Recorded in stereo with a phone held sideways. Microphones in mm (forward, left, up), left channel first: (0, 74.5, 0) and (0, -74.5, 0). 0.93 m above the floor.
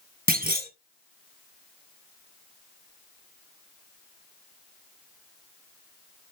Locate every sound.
0.3 s a clunk: 85° right, 1.4 m